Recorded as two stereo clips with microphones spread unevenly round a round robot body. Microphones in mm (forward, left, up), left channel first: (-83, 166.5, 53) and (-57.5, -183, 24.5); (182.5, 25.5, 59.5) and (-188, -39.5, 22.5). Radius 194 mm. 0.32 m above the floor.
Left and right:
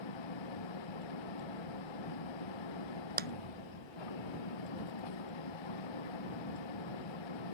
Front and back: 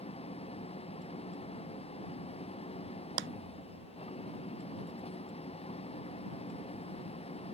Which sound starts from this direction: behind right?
A clap, at 3.2 s.